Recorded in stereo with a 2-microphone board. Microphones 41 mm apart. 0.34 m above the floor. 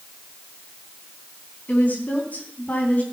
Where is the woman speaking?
45° left (ahead or behind), 3.5 m.